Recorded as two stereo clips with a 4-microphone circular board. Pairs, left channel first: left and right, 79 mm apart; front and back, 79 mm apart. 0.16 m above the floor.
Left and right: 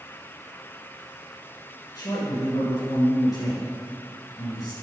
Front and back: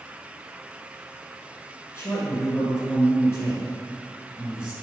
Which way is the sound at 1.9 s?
55° left.